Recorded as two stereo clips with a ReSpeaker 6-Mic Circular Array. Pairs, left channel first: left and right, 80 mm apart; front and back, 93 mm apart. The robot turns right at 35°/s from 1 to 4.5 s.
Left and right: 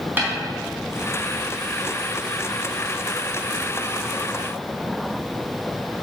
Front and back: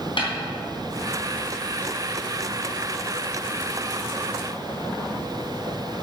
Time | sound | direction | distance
0.2 | a snare drum | 25° right | 3.5 m